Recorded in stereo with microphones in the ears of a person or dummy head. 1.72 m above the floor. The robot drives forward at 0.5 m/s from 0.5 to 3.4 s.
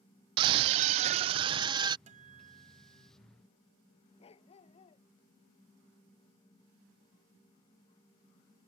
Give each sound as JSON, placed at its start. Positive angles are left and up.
{"t": 0.4, "sound": "a scream", "side_deg": -30}
{"t": 2.1, "sound": "a guitar", "side_deg": -40}
{"t": 4.2, "sound": "a dog barking", "side_deg": 30}